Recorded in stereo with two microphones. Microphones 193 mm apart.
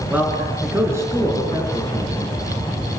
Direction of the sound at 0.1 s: 10° right (ahead or behind).